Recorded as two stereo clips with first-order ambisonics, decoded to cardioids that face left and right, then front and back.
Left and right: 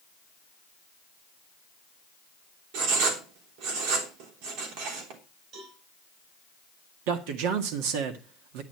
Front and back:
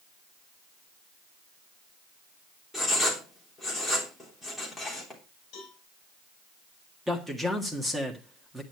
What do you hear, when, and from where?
2.7 s writing: 85° right, 3 m
5.5 s a cowbell: 50° right, 5 m
7.1 s a man speaking: 95° right, 1.6 m